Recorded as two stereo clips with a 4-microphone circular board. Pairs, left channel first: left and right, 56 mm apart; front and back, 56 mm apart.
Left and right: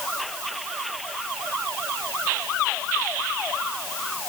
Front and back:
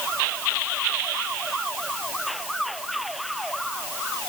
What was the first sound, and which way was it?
Only background noise.